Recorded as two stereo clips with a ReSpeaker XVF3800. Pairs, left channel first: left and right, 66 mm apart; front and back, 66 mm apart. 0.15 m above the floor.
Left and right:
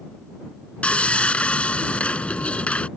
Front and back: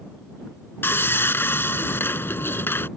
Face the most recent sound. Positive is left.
turn(degrees=25)